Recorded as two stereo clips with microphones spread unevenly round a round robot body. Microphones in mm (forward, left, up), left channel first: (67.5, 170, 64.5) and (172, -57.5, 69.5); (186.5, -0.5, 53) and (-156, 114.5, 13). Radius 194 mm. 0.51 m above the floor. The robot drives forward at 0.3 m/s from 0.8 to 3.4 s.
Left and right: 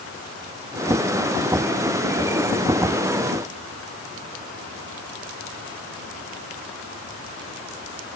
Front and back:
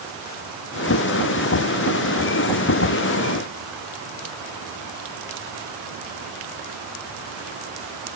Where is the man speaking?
No man speaking in this recording.